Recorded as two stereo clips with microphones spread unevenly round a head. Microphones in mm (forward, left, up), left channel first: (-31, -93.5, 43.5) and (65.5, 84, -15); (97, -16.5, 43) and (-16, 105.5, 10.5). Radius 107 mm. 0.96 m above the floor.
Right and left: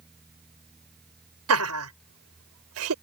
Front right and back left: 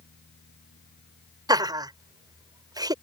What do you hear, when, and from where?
0.0 s a fan: 30° right
1.5 s laughter: 65° left